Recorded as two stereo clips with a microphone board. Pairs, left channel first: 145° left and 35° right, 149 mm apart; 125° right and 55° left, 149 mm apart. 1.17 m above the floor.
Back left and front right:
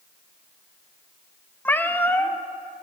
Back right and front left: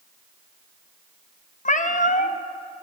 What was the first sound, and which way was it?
A cat meowing, 140° right.